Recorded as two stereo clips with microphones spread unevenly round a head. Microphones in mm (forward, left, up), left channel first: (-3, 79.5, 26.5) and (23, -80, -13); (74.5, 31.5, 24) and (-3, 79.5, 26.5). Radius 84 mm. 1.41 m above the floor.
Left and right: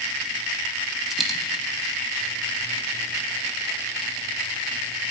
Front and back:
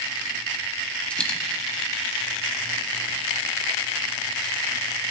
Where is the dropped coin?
35° left, 0.9 m.